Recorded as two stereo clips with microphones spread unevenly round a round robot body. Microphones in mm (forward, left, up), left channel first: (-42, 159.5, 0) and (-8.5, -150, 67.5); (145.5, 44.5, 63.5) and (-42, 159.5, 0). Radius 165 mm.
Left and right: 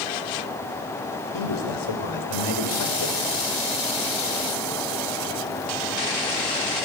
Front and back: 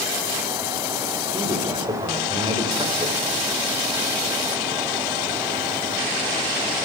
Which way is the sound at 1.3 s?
85° left.